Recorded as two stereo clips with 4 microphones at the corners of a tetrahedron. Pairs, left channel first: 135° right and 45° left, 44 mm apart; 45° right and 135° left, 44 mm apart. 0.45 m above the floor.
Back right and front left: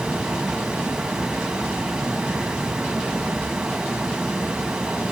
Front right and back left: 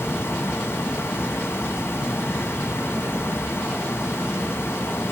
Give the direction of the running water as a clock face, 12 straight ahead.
1 o'clock.